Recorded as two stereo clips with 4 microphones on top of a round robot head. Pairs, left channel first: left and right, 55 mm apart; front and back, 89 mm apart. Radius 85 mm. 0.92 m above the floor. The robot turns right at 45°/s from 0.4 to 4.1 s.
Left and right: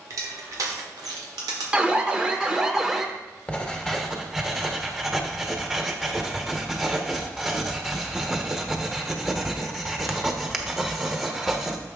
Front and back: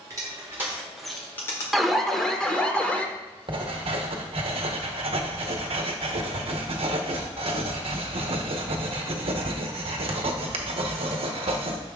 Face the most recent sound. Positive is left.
turn(degrees=180)